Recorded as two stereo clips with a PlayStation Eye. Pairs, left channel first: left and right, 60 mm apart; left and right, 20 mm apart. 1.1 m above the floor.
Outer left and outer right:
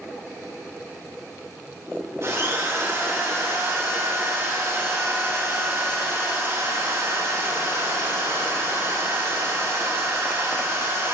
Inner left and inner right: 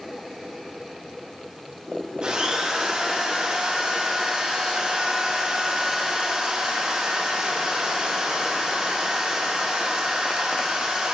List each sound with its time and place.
2.2 s a drill: 50° right (ahead or behind), 6.5 m